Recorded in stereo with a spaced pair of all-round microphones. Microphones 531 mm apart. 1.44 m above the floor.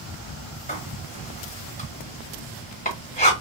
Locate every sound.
0.7 s writing: 15° left (ahead or behind), 1.4 m